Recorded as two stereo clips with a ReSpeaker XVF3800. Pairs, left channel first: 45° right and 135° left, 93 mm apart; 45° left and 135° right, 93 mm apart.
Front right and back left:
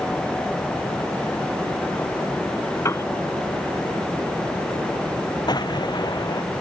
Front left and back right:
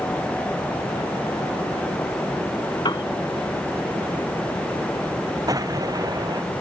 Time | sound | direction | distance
2.9 | a piano | 10° left | ?
5.5 | an explosion | 85° right | ?